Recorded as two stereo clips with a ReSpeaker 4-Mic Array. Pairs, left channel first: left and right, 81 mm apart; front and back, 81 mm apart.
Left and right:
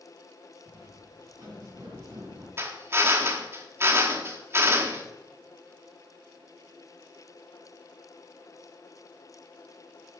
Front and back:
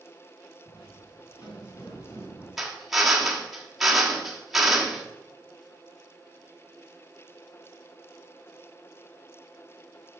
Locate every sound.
0.7 s footsteps: 25° right, 4.5 m; by 2.5 s 45° right, 4.5 m
2.6 s a drill: 95° right, 1.2 m